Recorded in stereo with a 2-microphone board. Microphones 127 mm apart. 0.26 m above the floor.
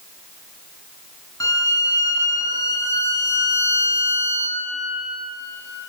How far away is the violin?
About 1.7 m.